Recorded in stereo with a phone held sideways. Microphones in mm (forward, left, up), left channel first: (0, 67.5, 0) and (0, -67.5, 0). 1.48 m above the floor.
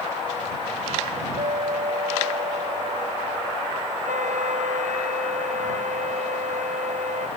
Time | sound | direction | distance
1.4 | a clink | 65° right (ahead or behind) | ?
4.0 | a flute | 75° right (ahead or behind) | ?